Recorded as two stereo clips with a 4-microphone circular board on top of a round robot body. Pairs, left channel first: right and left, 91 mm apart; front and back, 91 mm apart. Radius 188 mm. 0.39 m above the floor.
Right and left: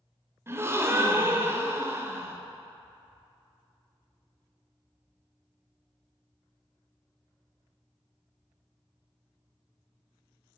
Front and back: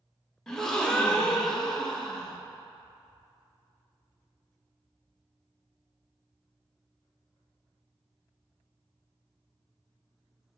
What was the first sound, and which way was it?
A gasp, 75° left.